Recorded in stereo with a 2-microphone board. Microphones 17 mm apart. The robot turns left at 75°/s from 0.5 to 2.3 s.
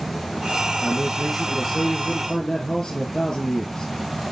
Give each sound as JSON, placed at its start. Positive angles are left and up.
{"t": 0.8, "sound": "a man speaking", "azimuth_deg": -135, "distance_m": 2.5}